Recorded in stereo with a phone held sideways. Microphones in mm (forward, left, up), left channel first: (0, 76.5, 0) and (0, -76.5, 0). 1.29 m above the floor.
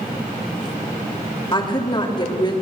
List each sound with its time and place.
1.5 s a woman speaking: 30° left (ahead or behind), 3 m